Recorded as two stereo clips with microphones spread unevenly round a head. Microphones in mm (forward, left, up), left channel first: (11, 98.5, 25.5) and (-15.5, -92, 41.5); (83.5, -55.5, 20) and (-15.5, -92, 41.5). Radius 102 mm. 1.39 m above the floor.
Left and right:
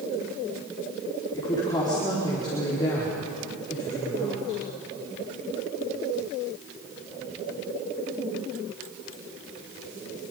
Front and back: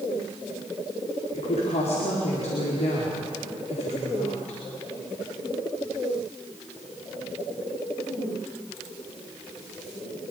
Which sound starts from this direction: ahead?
A woman speaking, at 1.3 s.